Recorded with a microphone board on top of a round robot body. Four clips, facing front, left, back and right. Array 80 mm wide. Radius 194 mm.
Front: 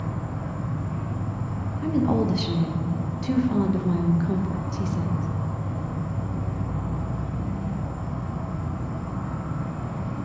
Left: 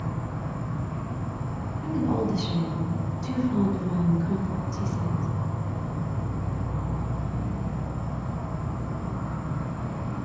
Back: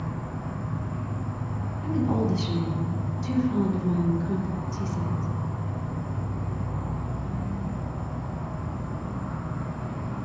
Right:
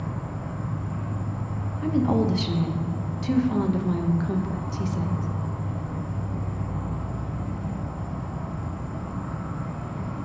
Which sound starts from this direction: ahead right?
A woman speaking, at 1.8 s.